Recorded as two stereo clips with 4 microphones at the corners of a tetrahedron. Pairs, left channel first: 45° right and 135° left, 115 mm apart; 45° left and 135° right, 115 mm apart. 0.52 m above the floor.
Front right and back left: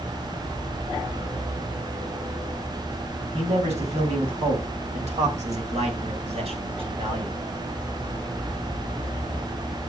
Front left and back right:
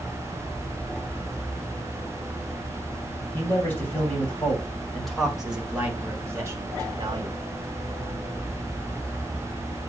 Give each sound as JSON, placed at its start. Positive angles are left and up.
{"t": 3.3, "sound": "a man speaking", "azimuth_deg": 115, "distance_m": 3.0}